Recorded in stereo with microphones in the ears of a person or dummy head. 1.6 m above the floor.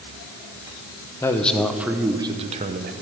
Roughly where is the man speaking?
Centre.